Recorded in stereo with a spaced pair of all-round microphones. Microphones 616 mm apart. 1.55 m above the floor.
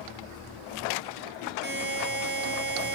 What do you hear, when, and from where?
1.6 s a buzzer: 15° right (ahead or behind), 4 m